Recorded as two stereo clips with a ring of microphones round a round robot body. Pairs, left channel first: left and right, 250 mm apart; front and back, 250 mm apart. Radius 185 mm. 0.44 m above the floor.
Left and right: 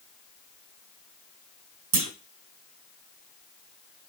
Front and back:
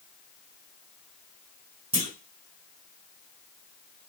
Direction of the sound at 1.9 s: 115° right.